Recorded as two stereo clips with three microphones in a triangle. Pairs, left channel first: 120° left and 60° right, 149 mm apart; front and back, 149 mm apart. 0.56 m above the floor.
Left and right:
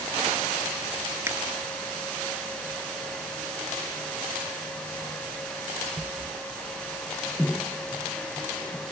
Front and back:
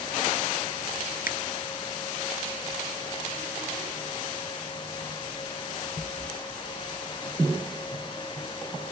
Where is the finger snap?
15° left.